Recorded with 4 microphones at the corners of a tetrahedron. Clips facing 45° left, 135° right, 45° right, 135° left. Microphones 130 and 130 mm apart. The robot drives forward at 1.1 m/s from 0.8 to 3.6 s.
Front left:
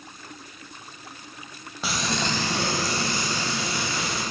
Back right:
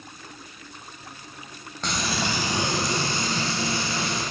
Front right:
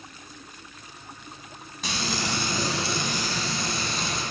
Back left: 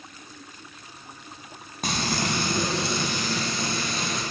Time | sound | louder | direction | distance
1.8 | frying | even, back left 3 dB | 125° left | 1.0 m